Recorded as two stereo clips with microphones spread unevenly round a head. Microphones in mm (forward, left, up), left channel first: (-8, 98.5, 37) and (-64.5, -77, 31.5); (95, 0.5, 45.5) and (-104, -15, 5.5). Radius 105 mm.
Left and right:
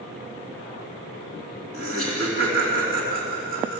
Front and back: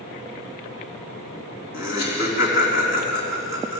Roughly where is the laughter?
Ahead.